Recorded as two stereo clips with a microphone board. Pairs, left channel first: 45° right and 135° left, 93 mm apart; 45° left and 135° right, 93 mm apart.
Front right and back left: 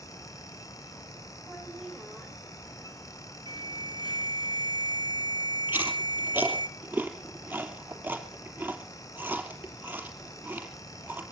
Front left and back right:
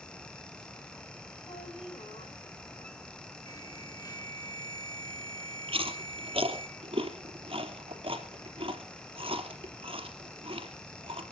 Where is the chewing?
150° right, 3 m.